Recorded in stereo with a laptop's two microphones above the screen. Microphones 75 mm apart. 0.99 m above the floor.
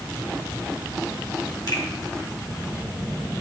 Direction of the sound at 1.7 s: 55° left (ahead or behind).